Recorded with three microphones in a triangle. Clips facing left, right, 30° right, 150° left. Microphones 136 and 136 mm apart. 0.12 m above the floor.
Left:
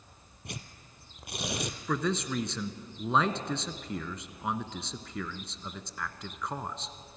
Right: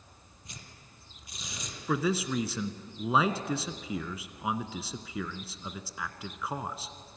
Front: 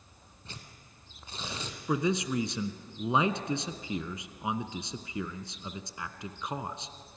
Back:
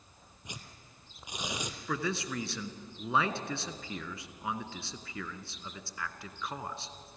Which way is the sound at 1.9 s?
15° right.